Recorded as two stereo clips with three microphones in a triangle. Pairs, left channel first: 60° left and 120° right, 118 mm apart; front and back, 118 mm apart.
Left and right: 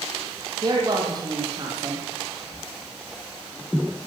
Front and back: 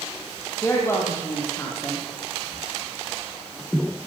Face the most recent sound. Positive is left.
turn(degrees=-65)